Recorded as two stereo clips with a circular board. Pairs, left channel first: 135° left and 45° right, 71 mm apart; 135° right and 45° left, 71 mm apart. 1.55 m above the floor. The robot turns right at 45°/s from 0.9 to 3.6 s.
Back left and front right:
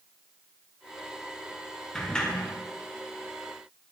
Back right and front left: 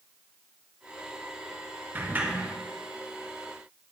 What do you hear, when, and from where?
1.9 s a sliding door: 60° left, 0.8 m; by 2.5 s 85° left, 0.8 m